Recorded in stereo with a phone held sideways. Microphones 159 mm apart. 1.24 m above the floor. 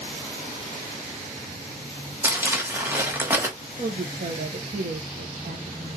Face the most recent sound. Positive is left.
turn(degrees=-65)  # may be behind; listen again after turning